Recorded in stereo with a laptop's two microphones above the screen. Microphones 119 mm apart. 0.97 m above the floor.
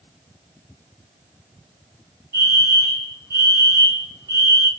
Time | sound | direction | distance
2.3 | a fire alarm | 30° right (ahead or behind) | 3 m